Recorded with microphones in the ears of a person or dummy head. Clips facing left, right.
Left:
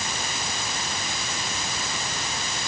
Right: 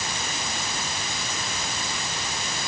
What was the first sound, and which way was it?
Only background noise.